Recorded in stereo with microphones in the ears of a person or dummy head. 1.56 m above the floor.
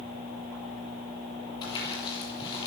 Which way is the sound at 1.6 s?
20° left (ahead or behind).